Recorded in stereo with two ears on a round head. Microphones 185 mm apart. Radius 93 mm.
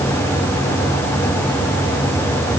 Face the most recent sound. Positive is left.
No sound to turn to.